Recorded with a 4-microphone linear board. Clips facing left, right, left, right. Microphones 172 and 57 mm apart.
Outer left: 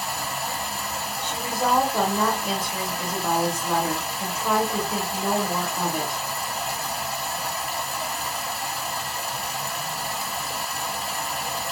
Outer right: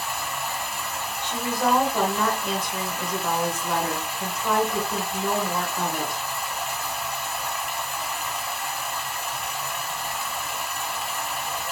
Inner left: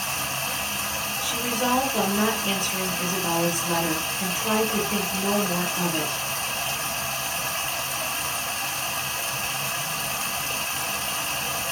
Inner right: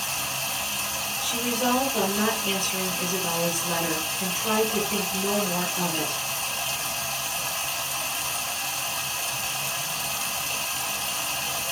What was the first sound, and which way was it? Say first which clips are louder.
Running water: outer left 1 dB, inner left 2 dB; 35° left (ahead or behind).